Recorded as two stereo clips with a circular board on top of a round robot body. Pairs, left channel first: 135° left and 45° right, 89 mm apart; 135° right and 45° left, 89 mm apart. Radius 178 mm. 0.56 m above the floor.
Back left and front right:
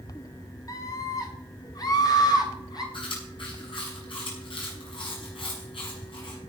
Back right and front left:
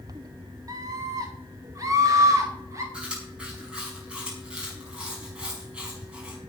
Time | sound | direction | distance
0.7 | a scream | 90° left | 3 m
2.9 | chewing | 125° left | 5.5 m